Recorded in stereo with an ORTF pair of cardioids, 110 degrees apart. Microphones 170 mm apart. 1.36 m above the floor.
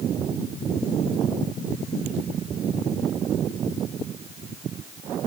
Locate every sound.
Only background noise.